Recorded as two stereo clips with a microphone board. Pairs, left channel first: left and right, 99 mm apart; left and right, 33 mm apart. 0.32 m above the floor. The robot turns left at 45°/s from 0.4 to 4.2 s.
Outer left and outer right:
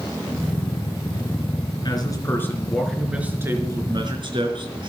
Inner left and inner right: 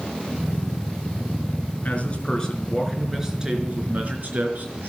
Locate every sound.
1.9 s a man speaking: 45° left, 4 m; by 4.9 s 60° right, 4 m